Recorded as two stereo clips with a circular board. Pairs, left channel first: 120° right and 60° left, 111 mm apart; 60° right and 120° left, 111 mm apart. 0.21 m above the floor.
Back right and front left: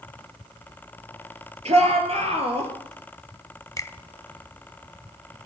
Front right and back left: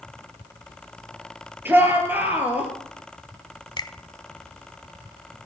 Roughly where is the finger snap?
Right.